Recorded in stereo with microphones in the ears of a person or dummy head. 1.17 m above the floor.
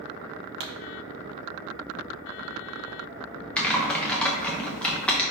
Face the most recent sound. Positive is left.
turn(degrees=10)  # may be behind; listen again after turning